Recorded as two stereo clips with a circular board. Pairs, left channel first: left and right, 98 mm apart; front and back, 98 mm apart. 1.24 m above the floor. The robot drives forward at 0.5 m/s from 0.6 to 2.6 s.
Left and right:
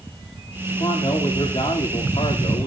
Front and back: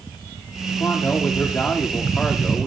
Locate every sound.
0.8 s a man speaking: 65° left, 2.5 m; by 2.7 s 85° left, 2.5 m